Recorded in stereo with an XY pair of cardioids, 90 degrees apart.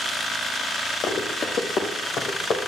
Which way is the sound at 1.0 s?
60° left.